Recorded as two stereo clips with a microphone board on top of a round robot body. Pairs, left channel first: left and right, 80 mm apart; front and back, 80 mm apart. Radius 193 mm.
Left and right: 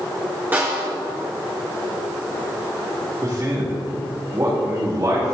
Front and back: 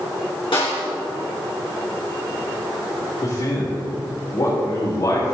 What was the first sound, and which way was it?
A snare drum, 20° right.